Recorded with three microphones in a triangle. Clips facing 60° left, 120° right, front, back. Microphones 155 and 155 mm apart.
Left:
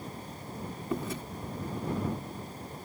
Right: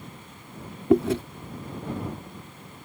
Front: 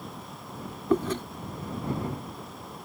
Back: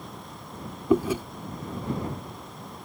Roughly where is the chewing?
Right.